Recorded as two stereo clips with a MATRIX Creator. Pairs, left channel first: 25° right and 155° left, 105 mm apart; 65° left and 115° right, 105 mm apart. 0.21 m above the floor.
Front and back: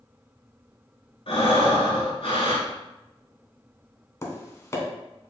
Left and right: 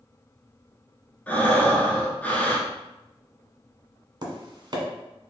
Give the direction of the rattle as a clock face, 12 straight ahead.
I don't hear a rattle.